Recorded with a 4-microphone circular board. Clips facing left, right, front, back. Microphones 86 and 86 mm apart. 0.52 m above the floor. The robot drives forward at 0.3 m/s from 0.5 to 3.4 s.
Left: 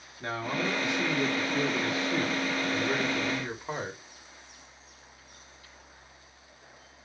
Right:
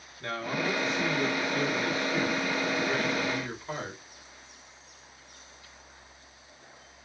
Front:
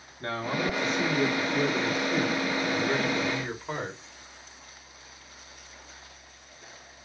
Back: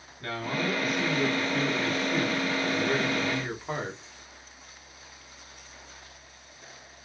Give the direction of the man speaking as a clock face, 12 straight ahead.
11 o'clock.